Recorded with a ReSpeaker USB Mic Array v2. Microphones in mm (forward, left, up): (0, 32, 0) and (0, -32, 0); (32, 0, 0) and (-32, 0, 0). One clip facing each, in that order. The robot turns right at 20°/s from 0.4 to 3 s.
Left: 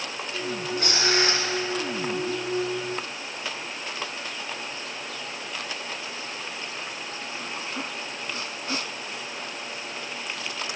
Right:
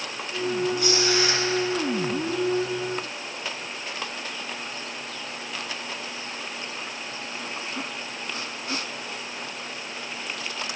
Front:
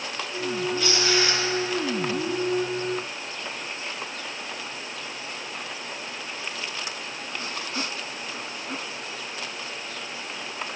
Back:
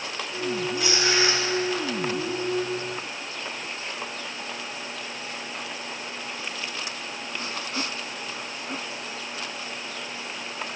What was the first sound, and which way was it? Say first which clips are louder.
Tearing paper: right 1 dB, back 1 dB; 110° left.